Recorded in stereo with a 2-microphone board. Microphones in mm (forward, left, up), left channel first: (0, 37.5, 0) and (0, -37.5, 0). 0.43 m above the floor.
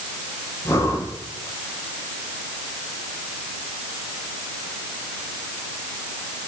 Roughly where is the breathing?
Left.